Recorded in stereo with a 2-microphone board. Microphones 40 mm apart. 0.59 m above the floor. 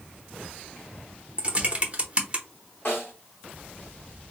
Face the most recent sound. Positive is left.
turn(degrees=40)  # may be behind; listen again after turning